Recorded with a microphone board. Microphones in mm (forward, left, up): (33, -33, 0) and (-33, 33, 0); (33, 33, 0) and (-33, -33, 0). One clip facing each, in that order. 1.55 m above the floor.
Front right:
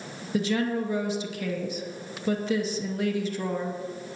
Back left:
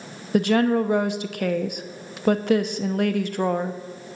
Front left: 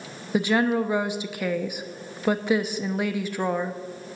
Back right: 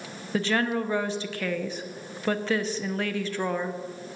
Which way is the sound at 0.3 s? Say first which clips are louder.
Back left 7 dB, front left 4 dB; 120° left.